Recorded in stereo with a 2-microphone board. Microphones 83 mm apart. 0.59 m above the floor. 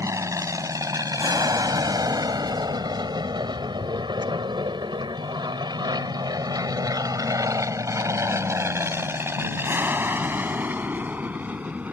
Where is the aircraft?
40° right (ahead or behind); by 11.9 s 15° right (ahead or behind).